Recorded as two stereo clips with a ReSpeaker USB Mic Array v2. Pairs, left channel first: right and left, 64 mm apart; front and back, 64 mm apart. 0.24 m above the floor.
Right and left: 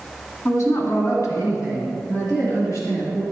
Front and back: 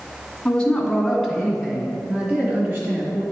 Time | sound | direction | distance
0.5 | a woman speaking | 75° right | 2.0 m